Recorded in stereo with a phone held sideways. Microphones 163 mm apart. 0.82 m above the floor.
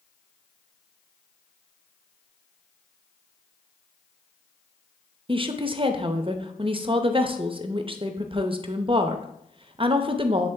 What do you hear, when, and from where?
5.3 s a woman speaking: 35° right (ahead or behind), 0.6 m